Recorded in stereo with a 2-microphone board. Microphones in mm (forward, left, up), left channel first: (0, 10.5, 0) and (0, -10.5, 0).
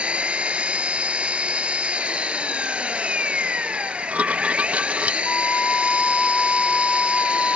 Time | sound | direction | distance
0.0 | an engine running | 60° right (ahead or behind) | ?
3.7 | dishes clattering | 80° right | ?
5.2 | a flute | 75° left (ahead or behind) | ?